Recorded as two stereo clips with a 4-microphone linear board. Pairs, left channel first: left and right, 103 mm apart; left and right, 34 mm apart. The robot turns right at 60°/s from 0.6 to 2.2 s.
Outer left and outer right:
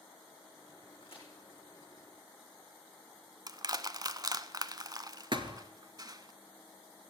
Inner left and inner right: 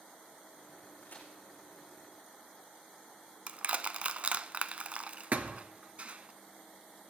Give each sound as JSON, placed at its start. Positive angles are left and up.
{"t": 1.0, "sound": "a crack", "side_deg": 60, "distance_m": 5.5}
{"t": 3.5, "sound": "crushing", "side_deg": -40, "distance_m": 0.6}
{"t": 5.3, "sound": "a thud", "side_deg": -50, "distance_m": 1.3}